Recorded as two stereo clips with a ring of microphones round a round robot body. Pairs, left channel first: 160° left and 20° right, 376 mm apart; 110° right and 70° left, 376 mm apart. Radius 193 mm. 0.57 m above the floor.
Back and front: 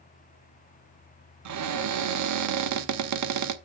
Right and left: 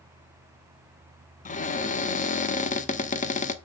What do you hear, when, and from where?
1.4 s a cupboard door: 45° right, 1.1 m